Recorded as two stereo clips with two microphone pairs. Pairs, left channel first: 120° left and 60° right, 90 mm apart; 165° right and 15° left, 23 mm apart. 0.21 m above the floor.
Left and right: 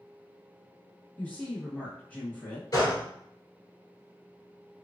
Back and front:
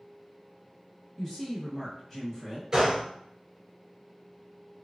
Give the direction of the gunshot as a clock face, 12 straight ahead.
10 o'clock.